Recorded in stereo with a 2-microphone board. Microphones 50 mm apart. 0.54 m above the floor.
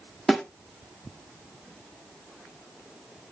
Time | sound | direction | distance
0.3 | a snare drum | 5° left (ahead or behind) | 1.3 m